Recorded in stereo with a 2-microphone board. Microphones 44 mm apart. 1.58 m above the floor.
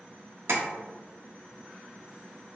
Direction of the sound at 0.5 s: 75° right (ahead or behind).